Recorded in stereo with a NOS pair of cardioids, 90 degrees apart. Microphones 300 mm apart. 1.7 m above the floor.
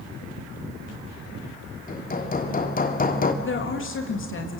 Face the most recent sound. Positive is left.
turn(degrees=40)